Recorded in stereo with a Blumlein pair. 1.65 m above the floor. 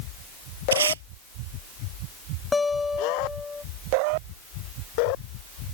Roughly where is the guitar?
Ahead.